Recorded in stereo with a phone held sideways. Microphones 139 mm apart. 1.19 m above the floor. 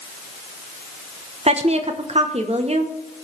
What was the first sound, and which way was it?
A woman speaking, 50° right (ahead or behind).